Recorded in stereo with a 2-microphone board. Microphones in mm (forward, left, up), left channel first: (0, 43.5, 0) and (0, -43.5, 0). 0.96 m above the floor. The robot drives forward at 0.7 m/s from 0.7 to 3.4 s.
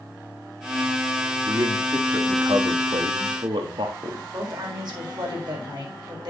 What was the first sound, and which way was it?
A man speaking, 50° right (ahead or behind).